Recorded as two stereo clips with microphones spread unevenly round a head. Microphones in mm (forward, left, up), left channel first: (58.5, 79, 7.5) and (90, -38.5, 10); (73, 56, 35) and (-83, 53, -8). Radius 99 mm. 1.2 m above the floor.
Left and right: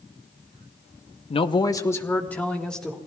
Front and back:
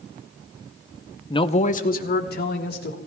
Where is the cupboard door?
I don't hear a cupboard door.